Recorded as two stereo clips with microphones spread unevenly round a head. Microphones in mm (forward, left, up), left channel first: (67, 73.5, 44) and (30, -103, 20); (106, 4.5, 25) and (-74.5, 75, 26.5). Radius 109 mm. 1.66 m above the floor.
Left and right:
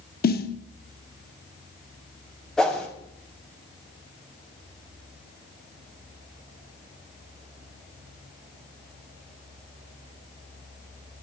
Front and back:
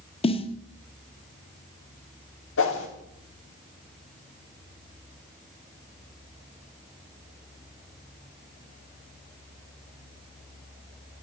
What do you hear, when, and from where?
0.2 s a snare drum: 40° left, 1.5 m
2.6 s a whoosh: 5° right, 4.5 m